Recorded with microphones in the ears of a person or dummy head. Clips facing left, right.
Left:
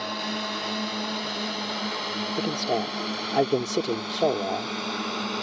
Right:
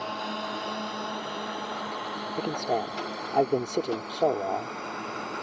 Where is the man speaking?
20° left (ahead or behind).